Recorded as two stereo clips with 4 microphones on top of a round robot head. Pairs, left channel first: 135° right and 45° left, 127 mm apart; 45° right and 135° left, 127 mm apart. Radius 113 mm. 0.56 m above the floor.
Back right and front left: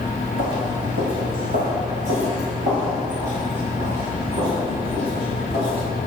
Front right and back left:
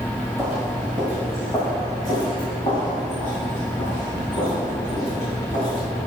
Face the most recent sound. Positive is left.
turn(degrees=0)